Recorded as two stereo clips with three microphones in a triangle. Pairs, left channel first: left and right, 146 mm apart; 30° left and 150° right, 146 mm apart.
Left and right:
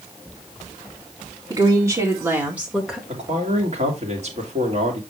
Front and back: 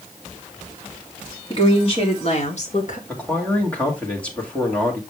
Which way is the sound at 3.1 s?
50° right.